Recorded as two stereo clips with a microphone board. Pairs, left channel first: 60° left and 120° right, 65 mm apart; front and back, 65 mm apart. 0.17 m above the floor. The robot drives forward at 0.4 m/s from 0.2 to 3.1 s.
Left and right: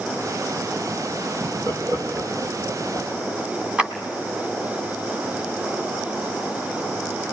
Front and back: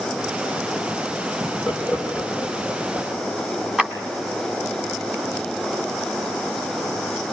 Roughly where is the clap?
Behind right.